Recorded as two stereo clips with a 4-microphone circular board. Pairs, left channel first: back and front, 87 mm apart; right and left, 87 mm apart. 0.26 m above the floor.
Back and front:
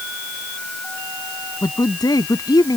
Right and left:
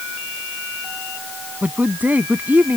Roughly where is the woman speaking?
Behind left.